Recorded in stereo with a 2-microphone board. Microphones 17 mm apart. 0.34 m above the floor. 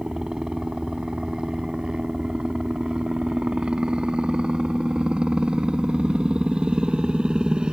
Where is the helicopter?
50° right (ahead or behind); by 7.7 s 65° right (ahead or behind).